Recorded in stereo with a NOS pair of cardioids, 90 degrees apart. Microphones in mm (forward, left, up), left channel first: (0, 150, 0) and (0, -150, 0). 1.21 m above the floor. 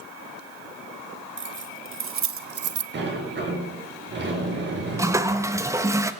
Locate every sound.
1.4 s keys jangling: 40° right, 2 m; by 2.8 s 60° right, 1.0 m
2.9 s a sliding door: 35° right, 4.5 m
5.0 s a toilet flushing: 10° right, 1.2 m